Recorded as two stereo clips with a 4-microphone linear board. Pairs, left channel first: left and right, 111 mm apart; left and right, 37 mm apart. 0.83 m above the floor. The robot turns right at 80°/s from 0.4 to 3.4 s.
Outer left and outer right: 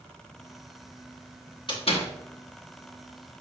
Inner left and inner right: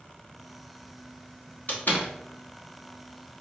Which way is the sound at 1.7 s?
45° left (ahead or behind).